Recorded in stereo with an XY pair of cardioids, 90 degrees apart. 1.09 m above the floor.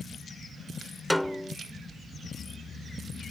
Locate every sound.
1.1 s a snare drum: 5° left